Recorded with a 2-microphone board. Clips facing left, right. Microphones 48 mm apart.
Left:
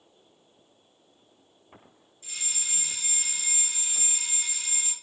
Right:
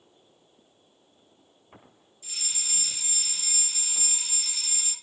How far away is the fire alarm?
About 4 m.